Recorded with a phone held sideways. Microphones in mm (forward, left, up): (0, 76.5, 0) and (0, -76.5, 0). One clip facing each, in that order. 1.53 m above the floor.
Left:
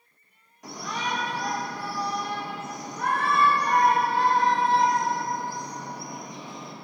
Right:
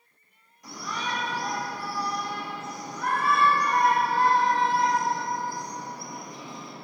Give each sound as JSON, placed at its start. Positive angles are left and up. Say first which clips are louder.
{"t": 0.6, "sound": "a shout", "louder": "left 2 dB", "side_deg": 75, "distance_m": 3.5}